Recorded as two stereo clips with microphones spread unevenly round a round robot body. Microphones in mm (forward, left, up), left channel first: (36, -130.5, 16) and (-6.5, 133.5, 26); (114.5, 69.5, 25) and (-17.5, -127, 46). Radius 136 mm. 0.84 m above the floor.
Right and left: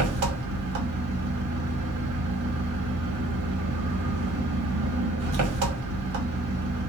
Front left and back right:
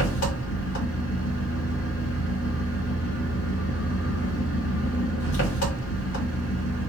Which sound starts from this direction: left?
An engine running, at 0.0 s.